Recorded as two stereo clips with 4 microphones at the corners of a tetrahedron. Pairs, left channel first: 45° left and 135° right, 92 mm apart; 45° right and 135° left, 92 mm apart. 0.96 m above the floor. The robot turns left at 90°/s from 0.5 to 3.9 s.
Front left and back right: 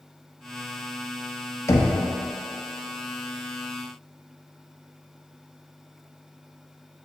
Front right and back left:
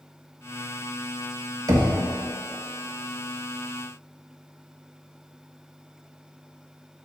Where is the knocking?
95° left, 0.9 m; by 1.9 s 75° left, 0.9 m.